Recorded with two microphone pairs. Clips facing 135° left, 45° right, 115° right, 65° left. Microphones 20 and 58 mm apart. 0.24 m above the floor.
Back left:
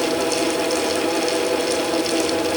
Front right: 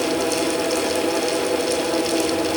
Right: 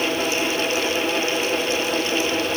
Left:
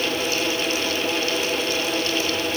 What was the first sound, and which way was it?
Only background noise.